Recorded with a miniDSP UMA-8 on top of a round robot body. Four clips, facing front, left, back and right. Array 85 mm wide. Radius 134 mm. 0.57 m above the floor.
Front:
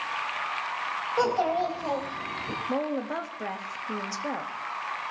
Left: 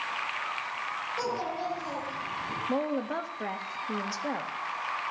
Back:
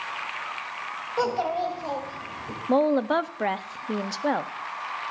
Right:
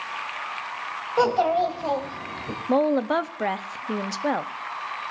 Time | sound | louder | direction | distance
1.2 | a child speaking | right 14 dB, even | 85° right | 3 m
2.7 | a woman speaking | right 10 dB, back 9 dB | 135° right | 0.8 m